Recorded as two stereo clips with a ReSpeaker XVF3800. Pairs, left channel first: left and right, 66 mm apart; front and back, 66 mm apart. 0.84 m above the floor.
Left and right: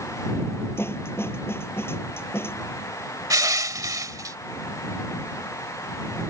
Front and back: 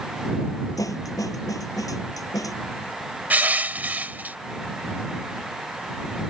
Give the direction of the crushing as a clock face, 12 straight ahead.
4 o'clock.